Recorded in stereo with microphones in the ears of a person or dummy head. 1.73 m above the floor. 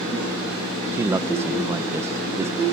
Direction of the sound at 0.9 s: 15° right (ahead or behind).